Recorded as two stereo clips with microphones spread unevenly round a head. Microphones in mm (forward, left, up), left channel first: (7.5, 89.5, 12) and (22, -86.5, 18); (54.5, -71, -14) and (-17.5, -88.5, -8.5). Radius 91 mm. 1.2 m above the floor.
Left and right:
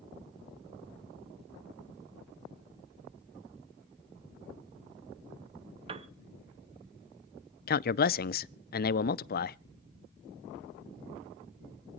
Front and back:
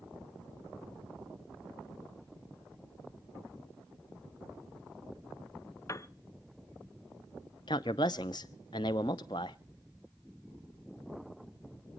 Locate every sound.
5.9 s a piano: 30° right, 0.9 m
7.7 s a man speaking: 60° left, 0.5 m